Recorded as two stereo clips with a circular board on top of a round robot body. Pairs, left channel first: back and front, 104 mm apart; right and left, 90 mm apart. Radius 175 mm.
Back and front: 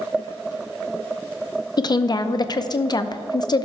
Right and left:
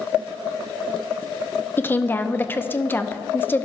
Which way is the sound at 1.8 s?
150° right.